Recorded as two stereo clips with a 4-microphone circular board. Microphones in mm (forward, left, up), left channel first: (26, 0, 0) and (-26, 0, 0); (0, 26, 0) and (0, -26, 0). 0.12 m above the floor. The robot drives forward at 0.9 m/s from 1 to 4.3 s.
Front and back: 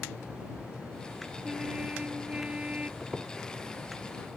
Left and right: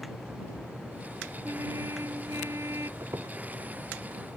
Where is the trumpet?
105° right; by 2.9 s 110° right.